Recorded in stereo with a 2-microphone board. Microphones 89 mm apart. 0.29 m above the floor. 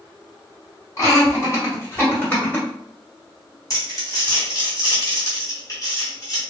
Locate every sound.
1.0 s laughter: 35° left (ahead or behind), 1.7 m; by 2.7 s 20° left (ahead or behind), 1.6 m
3.7 s crumpling: 40° left (ahead or behind), 1.9 m